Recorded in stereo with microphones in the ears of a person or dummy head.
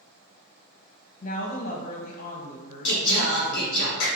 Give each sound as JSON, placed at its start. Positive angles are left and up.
{"t": 1.2, "sound": "a woman speaking", "side_deg": 45, "distance_m": 0.6}
{"t": 2.9, "sound": "singing", "side_deg": 70, "distance_m": 1.1}